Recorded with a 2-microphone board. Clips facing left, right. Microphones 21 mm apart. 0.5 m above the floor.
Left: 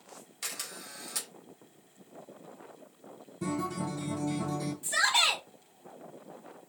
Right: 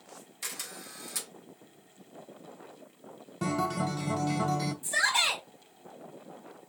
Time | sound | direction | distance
0.4 | a camera shutter | 15° left (ahead or behind) | 1.2 m
3.4 | a guitar | 65° right (ahead or behind) | 0.6 m
4.8 | a shout | 40° left (ahead or behind) | 1.5 m